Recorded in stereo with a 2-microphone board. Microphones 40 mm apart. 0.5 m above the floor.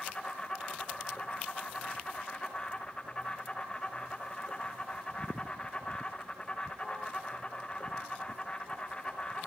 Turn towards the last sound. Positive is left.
turn(degrees=15)  # may be behind; listen again after turning